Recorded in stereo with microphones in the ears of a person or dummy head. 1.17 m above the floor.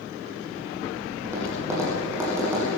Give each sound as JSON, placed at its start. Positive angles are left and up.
{"t": 1.2, "sound": "tapping", "side_deg": -15, "distance_m": 9.0}